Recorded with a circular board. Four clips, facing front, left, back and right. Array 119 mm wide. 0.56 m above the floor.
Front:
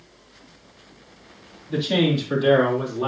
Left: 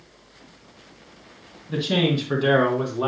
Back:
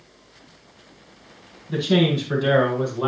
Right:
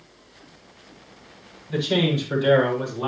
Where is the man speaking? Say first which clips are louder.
Even, back 1 dB; 120° left, 6.5 m; by 3.1 s 115° left, 5.5 m.